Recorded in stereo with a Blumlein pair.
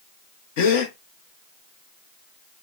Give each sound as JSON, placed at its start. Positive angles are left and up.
{"t": 0.6, "sound": "a gasp", "azimuth_deg": 50, "distance_m": 0.6}